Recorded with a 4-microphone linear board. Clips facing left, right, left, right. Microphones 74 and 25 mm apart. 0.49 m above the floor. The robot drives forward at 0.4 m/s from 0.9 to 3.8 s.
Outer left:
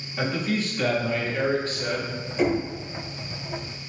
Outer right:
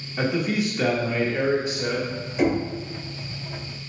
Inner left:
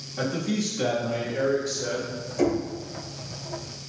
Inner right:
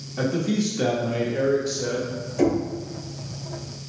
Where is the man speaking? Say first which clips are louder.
Outer right 2 dB, inner right 3 dB; 15° right (ahead or behind), 0.8 m.